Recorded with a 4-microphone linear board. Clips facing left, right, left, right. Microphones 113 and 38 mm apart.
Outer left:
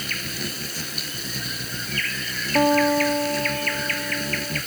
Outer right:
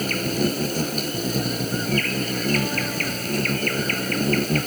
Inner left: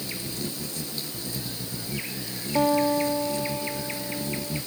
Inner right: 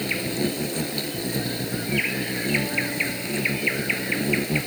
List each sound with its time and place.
0.0 s an insect: 45° right (ahead or behind)
2.5 s a guitar: 50° left (ahead or behind)